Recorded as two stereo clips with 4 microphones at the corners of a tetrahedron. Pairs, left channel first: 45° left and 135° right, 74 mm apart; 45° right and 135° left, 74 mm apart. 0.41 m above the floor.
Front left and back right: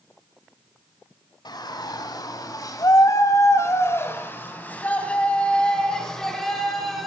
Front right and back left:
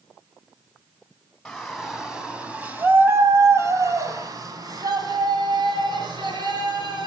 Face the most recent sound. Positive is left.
turn(degrees=135)